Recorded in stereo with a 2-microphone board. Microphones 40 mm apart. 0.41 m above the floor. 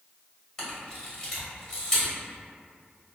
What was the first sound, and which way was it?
A camera shutter, 20° left (ahead or behind).